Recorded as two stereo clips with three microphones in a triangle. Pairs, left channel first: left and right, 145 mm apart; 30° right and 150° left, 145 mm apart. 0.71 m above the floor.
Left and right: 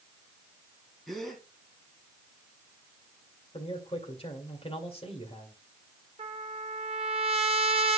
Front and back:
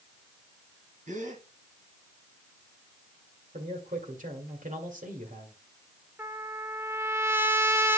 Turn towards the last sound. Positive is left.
turn(degrees=-135)